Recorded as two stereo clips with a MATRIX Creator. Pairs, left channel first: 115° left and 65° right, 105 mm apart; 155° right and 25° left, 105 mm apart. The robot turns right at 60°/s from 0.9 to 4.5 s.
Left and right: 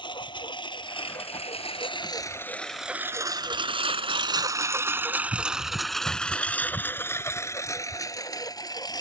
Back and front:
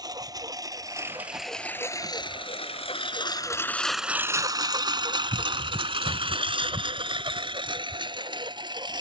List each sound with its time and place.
0.0 s a lawn mower: 75° left; by 9.0 s 65° left